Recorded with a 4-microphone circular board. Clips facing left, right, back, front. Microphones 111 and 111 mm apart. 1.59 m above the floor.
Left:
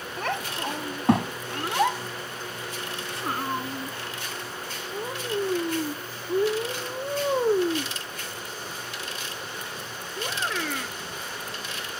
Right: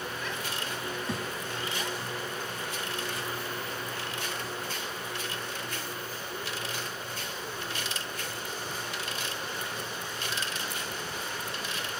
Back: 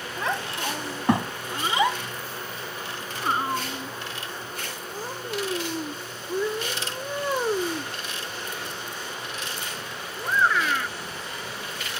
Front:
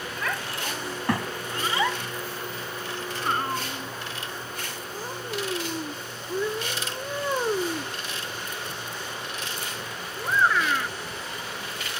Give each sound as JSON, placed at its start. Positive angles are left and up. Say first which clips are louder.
{"t": 0.2, "sound": "a child speaking", "louder": "left 6 dB, back 4 dB", "azimuth_deg": 115}